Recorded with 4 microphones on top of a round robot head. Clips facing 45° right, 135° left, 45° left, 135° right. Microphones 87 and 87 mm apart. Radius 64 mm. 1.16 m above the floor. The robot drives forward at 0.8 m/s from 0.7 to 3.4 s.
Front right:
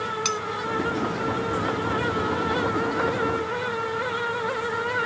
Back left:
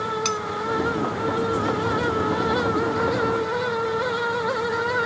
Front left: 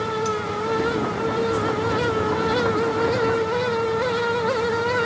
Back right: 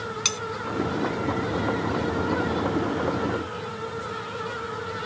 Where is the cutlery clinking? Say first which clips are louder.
Back left 2 dB, front left 9 dB; 135° right.